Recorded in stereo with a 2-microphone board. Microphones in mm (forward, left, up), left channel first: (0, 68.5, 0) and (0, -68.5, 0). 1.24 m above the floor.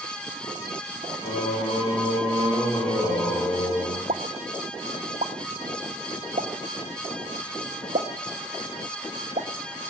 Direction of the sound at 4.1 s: 65° right (ahead or behind).